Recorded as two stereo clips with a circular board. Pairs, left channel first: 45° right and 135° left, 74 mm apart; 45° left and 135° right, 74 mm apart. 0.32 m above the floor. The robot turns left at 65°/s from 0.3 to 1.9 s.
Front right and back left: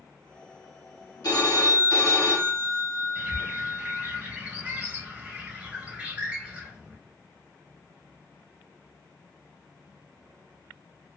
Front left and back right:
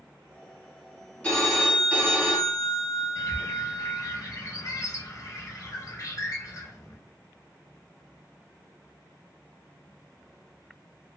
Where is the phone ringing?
25° right, 1.4 m; by 4.2 s 70° right, 1.4 m.